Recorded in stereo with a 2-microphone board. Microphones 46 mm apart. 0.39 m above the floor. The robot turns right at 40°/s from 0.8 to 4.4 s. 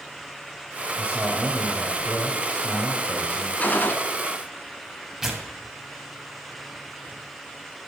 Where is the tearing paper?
10° right (ahead or behind), 1.9 m.